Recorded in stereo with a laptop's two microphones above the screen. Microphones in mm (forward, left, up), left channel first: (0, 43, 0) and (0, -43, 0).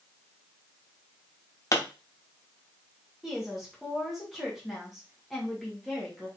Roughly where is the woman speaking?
Centre.